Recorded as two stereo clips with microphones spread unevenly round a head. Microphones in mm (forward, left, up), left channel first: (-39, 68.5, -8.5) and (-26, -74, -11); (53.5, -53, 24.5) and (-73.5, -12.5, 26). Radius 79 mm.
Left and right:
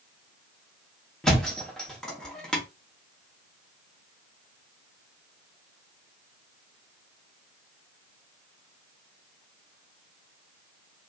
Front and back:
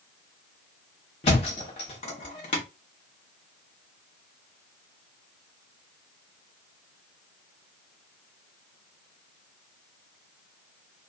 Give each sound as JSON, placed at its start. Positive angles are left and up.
{"t": 1.2, "sound": "a thud", "azimuth_deg": 10, "distance_m": 0.8}